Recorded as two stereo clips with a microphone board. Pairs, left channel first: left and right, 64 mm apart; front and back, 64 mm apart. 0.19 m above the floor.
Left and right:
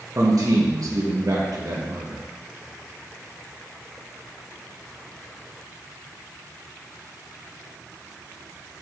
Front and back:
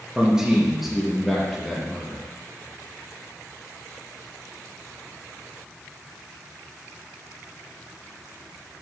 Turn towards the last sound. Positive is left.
turn(degrees=-80)